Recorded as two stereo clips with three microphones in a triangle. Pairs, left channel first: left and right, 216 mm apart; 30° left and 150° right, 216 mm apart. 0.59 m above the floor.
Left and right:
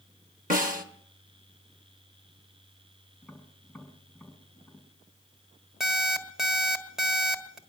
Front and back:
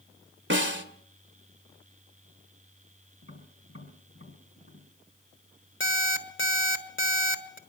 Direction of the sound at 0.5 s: 135° right.